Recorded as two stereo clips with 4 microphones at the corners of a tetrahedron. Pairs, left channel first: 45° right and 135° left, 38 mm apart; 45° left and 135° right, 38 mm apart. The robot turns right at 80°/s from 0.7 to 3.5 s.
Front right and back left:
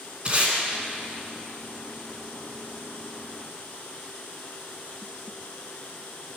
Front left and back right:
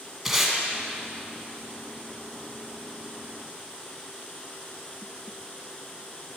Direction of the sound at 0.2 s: 145° left.